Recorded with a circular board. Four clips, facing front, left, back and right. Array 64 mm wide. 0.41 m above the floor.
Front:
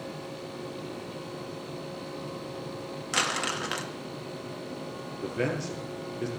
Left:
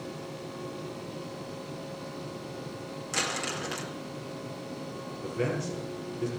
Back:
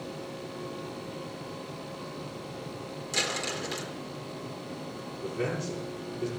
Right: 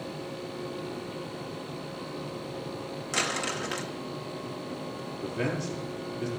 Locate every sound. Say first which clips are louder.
3.1 s crumpling: right 2 dB, front 4 dB; 5° right, 2.5 m
5.2 s a man speaking: even, front 2 dB; 5° right, 9.5 m